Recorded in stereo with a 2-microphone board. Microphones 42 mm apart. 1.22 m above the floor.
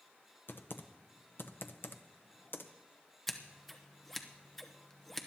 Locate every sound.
0.5 s typing on a keyboard: 60° left (ahead or behind), 0.6 m
3.3 s scissors: 5° left (ahead or behind), 0.8 m